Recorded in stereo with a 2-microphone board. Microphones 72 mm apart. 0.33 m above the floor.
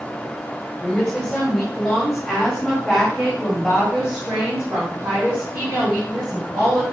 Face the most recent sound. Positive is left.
turn(degrees=-45)  # may be behind; listen again after turning